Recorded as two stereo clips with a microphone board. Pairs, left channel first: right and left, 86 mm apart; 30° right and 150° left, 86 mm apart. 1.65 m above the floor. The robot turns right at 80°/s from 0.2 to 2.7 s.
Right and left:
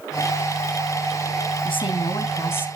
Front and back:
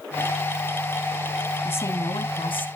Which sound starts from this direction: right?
A woman speaking, at 1.6 s.